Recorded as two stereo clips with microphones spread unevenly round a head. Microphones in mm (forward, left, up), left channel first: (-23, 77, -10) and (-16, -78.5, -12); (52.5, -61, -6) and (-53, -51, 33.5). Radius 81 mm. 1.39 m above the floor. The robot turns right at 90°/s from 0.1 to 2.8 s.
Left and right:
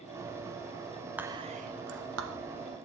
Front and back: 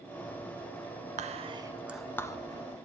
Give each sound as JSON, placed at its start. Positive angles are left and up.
{"t": 1.2, "sound": "whispering", "azimuth_deg": -170, "distance_m": 1.2}